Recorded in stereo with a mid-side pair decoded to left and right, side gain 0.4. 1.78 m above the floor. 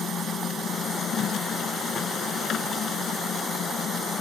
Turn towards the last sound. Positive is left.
turn(degrees=65)